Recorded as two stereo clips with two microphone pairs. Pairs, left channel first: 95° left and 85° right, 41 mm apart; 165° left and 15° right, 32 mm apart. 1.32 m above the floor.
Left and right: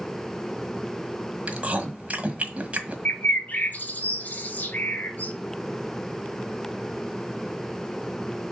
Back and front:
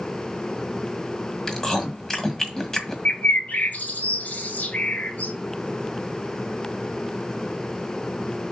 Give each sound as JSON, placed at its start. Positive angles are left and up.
{"t": 1.5, "sound": "chewing", "azimuth_deg": -125, "distance_m": 1.6}
{"t": 3.0, "sound": "a bird", "azimuth_deg": 140, "distance_m": 1.4}